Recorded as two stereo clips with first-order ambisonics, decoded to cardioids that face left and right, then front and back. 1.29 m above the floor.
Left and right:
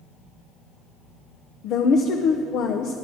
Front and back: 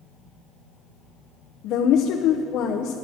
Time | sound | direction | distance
1.6 | a woman speaking | 45° left | 0.6 m